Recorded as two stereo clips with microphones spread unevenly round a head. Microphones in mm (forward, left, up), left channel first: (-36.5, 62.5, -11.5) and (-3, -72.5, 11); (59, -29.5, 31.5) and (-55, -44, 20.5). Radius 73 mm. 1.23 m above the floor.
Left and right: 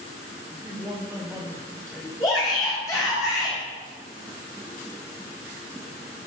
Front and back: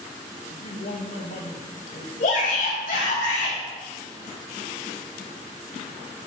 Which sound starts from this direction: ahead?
A man speaking, at 0.5 s.